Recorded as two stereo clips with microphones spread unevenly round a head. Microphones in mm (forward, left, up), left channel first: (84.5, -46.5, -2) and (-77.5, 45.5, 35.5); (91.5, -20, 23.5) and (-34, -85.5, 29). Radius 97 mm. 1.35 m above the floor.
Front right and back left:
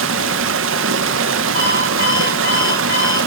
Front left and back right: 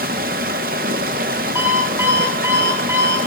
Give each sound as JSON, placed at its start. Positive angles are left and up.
{"t": 0.0, "sound": "running water", "azimuth_deg": 160, "distance_m": 0.8}
{"t": 1.6, "sound": "an alarm clock", "azimuth_deg": -80, "distance_m": 7.5}